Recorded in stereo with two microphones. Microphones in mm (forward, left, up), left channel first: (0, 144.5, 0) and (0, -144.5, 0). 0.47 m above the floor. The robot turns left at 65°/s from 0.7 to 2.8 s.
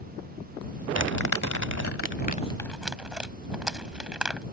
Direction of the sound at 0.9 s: 60° left (ahead or behind).